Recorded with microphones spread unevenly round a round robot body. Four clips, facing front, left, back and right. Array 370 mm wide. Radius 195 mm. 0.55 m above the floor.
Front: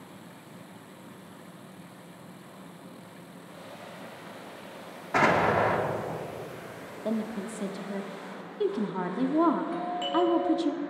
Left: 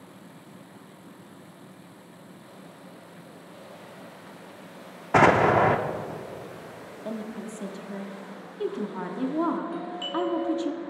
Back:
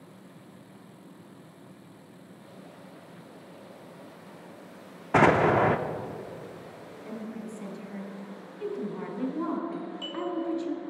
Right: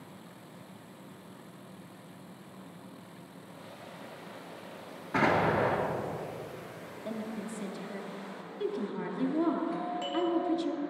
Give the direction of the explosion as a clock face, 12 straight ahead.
8 o'clock.